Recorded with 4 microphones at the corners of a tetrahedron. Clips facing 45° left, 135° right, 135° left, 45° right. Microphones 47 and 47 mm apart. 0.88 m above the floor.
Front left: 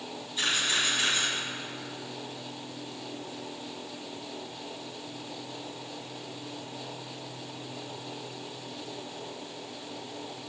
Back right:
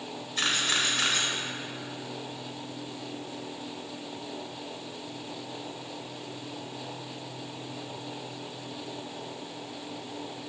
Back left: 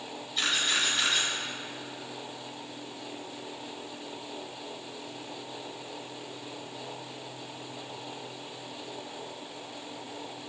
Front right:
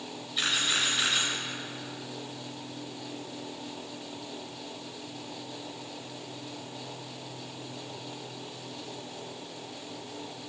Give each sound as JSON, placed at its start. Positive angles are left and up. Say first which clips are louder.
{"t": 0.4, "sound": "a camera shutter", "louder": "back right 1 dB, even", "azimuth_deg": -130, "distance_m": 2.0}